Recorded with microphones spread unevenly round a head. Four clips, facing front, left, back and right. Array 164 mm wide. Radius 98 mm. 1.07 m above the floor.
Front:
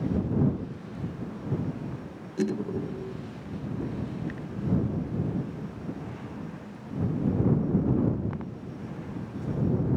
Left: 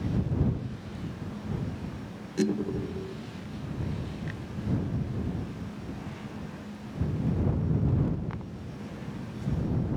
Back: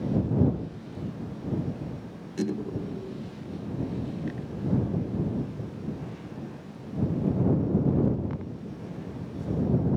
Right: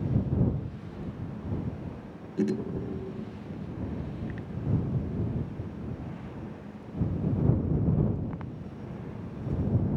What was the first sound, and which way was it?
Only background noise.